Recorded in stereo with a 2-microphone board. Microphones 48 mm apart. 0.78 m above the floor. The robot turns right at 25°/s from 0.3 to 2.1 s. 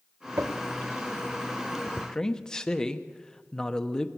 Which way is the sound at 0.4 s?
70° right (ahead or behind).